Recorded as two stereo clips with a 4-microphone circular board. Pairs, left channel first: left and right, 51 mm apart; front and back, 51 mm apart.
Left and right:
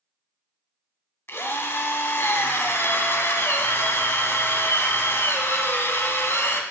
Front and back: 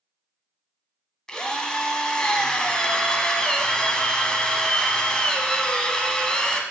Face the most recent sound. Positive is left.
turn(degrees=70)